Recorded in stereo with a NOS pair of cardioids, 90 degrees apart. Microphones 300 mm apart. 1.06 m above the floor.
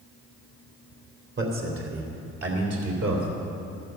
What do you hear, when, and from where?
1.4 s a man speaking: 40° right, 2.5 m; by 3.3 s 55° right, 3.5 m